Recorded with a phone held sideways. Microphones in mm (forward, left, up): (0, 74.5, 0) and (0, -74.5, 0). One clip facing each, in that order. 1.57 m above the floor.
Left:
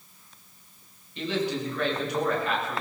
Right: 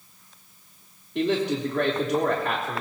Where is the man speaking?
85° right, 4 m.